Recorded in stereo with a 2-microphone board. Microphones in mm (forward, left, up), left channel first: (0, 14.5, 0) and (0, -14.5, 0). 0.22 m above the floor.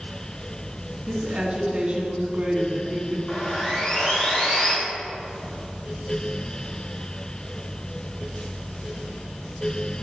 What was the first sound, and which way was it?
A woman speaking, 45° right (ahead or behind).